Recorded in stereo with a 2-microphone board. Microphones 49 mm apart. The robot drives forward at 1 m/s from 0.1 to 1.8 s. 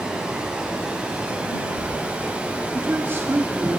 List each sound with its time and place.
0.0 s running water: 20° right (ahead or behind), 6.5 m; by 3.8 s 25° right (ahead or behind), 5 m
2.7 s a woman speaking: 50° right (ahead or behind), 2.5 m